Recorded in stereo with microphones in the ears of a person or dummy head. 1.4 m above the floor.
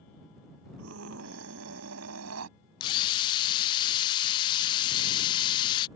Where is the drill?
25° left (ahead or behind).